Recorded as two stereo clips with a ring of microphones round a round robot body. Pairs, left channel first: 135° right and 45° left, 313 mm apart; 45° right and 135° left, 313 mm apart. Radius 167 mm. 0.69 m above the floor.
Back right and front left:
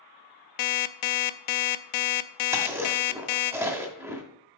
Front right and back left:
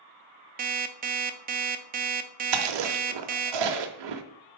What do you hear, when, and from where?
0.6 s an alarm clock: 160° right, 0.5 m
2.5 s chewing: 125° left, 0.8 m